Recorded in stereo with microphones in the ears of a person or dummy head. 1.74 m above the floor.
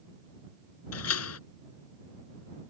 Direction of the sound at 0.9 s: 85° left.